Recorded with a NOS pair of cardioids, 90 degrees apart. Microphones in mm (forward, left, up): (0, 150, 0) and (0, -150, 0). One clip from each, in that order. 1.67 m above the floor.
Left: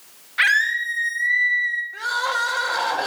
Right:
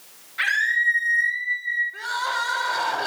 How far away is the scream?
About 2.5 m.